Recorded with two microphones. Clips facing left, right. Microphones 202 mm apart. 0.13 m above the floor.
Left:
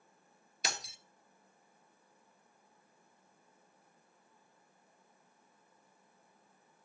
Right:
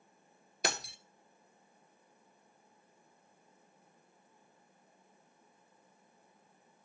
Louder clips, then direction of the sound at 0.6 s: Right 6 dB; 60° right (ahead or behind).